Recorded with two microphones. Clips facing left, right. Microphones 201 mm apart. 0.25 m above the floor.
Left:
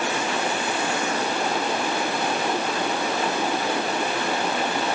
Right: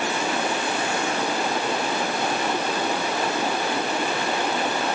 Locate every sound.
Only background noise.